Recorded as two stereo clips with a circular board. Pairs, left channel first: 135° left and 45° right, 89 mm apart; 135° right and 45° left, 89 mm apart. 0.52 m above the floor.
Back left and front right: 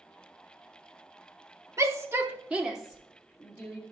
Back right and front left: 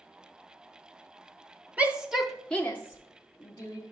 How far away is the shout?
About 1.0 m.